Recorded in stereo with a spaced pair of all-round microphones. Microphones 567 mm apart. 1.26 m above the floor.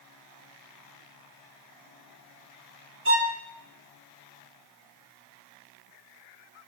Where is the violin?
20° right (ahead or behind), 2 m.